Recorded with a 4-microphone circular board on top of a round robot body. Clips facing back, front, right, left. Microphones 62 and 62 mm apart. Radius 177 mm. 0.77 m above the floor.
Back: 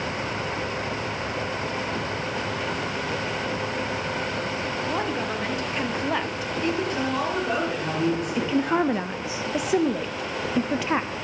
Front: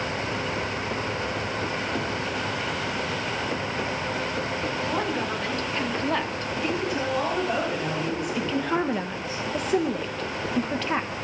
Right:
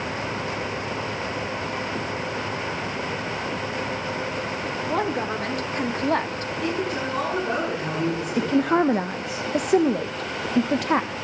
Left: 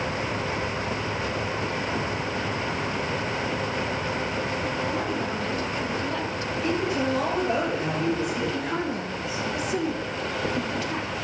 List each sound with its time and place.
4.8 s a woman speaking: 100° right, 2 m; by 6.5 s 95° right, 1.1 m
6.6 s a woman speaking: 130° right, 9.5 m
8.4 s a woman speaking: 100° right, 0.6 m